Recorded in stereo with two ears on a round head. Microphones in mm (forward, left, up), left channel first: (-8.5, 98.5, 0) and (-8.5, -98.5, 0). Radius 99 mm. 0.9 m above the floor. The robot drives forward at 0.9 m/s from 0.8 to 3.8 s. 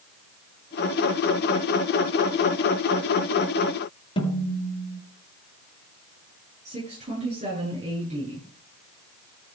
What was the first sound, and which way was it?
A snare drum, 25° left (ahead or behind).